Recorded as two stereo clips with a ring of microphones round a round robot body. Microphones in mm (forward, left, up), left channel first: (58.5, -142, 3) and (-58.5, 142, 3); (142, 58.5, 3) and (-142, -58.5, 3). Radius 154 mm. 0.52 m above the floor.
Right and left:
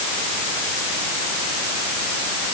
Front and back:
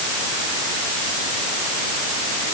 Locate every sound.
Only background noise.